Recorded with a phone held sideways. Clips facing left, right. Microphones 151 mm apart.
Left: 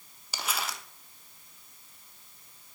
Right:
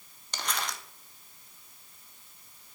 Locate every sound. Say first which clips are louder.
0.3 s crumpling: even; 5° left (ahead or behind), 0.9 m